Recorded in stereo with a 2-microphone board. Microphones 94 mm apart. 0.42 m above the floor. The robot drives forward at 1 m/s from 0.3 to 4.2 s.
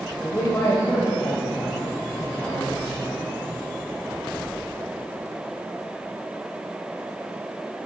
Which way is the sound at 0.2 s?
35° left (ahead or behind).